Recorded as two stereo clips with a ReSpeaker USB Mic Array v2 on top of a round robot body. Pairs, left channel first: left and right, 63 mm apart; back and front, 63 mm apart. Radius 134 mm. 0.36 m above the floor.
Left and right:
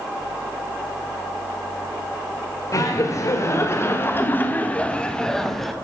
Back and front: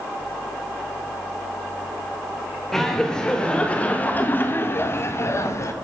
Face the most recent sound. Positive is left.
turn(degrees=180)